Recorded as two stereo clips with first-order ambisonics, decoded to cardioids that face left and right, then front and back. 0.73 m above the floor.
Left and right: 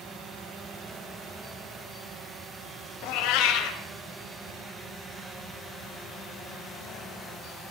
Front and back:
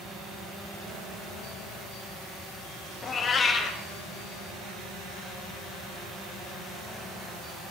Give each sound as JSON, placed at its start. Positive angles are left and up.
{"t": 3.0, "sound": "a cat meowing", "azimuth_deg": 65, "distance_m": 1.7}